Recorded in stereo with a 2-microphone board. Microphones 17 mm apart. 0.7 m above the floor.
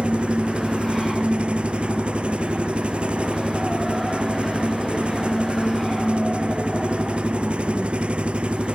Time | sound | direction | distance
0.0 | an engine running | 85° right | ?